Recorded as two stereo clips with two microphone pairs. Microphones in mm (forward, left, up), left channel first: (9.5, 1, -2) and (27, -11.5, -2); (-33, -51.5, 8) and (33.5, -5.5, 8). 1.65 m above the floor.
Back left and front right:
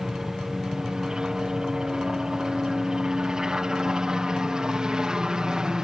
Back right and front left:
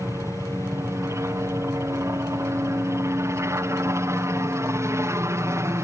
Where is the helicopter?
5° right.